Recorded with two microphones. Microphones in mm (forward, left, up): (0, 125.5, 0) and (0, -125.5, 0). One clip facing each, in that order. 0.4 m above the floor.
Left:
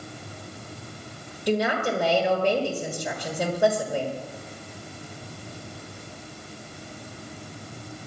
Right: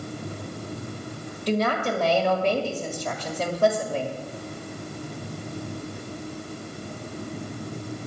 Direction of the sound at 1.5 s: 10° left (ahead or behind).